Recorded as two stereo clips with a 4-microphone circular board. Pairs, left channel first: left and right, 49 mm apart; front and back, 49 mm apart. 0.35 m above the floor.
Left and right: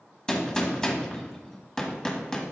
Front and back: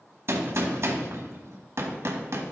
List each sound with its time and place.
0.3 s a gunshot: 165° left, 1.2 m